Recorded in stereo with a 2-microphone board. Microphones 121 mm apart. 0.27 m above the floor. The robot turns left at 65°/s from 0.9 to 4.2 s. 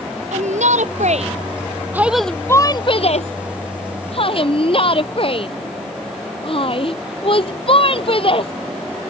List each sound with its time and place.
0.3 s a shout: 80° right; by 8.5 s 50° left (ahead or behind)